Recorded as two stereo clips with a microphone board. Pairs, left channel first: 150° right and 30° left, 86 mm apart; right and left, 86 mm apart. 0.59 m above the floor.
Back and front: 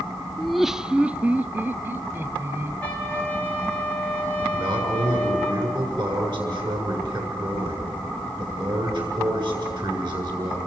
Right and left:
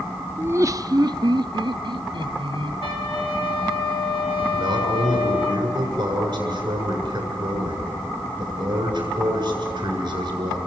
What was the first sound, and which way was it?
Laughter, 130° left.